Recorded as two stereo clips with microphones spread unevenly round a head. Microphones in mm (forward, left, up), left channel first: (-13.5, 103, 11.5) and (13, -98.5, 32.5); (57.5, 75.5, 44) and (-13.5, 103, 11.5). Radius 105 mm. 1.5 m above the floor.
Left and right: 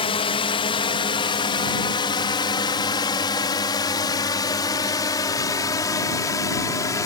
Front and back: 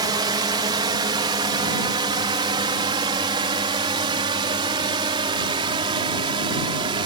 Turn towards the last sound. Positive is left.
turn(degrees=175)